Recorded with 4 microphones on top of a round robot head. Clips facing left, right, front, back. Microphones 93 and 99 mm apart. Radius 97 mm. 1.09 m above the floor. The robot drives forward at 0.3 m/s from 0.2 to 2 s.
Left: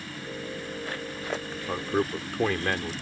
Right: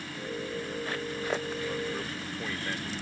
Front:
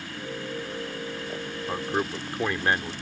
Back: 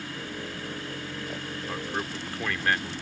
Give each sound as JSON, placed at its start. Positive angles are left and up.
{"t": 1.7, "sound": "a man speaking", "azimuth_deg": 65}